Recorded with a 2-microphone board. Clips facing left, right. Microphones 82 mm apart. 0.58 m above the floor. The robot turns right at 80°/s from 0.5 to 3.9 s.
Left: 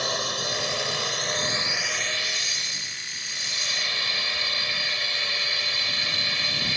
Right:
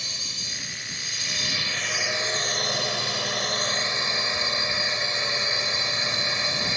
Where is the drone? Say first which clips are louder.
Left 13 dB; 65° left; by 6.8 s 25° right.